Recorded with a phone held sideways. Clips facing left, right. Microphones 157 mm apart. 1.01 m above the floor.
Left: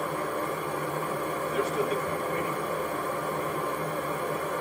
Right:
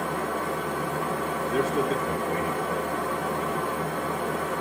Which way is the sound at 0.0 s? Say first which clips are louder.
Right 2 dB; 80° right.